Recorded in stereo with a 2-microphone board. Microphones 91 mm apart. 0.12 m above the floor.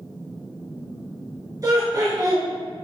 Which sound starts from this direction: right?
Laughter, at 1.6 s.